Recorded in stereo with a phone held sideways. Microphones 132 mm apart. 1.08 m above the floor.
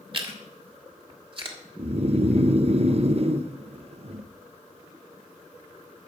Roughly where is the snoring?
Right.